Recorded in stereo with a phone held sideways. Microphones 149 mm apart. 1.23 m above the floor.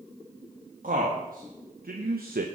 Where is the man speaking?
65° right (ahead or behind), 1.8 m; by 2.5 s 75° right (ahead or behind), 0.8 m.